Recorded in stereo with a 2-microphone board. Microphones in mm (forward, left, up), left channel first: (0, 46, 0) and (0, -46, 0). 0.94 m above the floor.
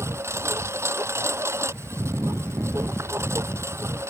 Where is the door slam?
No door slam in this recording.